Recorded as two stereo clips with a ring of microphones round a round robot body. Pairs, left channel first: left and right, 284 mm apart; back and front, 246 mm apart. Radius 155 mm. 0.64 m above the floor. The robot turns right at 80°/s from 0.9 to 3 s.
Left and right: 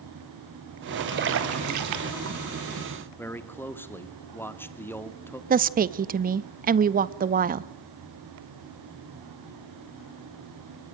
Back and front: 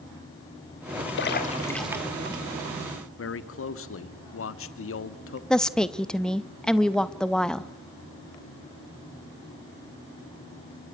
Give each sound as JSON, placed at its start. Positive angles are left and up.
{"t": 1.2, "sound": "a splash", "azimuth_deg": -140, "distance_m": 2.0}
{"t": 3.2, "sound": "a man speaking", "azimuth_deg": 170, "distance_m": 1.5}
{"t": 5.5, "sound": "a woman speaking", "azimuth_deg": -95, "distance_m": 0.8}